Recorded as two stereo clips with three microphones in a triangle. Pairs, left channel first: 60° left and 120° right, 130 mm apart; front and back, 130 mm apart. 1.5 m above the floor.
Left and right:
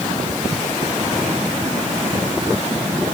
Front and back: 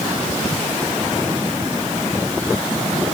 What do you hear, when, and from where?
Only background noise.